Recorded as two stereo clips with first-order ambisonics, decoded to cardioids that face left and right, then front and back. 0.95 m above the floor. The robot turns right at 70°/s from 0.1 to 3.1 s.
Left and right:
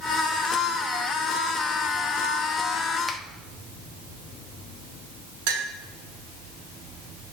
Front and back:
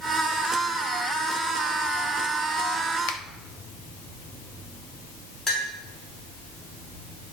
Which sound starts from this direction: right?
A clink, at 5.5 s.